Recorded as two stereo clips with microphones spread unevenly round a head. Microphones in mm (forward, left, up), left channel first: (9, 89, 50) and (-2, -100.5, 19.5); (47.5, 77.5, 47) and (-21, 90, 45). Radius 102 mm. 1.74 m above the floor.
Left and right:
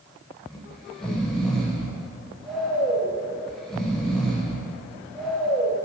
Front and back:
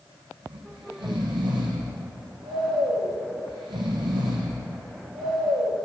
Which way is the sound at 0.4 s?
170° left.